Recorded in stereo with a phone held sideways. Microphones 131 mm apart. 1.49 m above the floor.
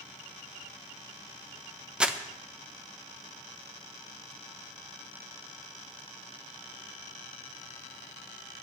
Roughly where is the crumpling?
Centre.